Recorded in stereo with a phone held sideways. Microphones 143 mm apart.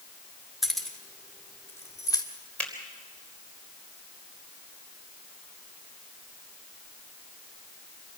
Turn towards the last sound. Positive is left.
turn(degrees=10)  # may be behind; listen again after turning